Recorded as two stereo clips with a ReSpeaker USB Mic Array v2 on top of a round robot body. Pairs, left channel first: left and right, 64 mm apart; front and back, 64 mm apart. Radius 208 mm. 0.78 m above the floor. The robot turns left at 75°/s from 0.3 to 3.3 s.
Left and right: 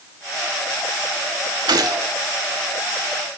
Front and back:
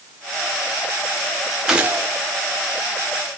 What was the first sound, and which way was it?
A gunshot, 100° right.